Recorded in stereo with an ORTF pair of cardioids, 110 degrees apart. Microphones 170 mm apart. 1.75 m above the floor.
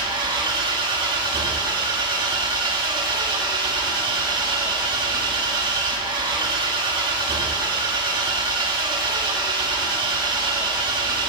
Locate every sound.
0.0 s an engine running: 30° right, 3.5 m